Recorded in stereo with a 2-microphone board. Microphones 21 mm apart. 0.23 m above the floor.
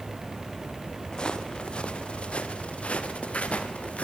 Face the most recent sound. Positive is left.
turn(degrees=85)